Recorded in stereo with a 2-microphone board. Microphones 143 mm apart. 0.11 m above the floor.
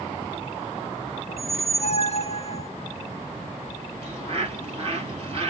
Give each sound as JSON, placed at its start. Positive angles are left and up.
{"t": 1.3, "sound": "a squeak", "side_deg": 50, "distance_m": 0.9}
{"t": 4.0, "sound": "a bird", "side_deg": -45, "distance_m": 2.5}